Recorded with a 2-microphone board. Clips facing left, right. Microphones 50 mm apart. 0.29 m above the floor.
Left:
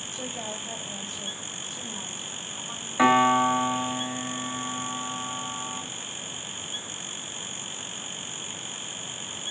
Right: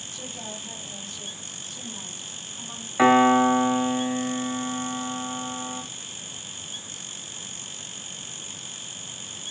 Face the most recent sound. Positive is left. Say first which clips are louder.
# right 3 dB
turn(degrees=-10)  # may be behind; listen again after turning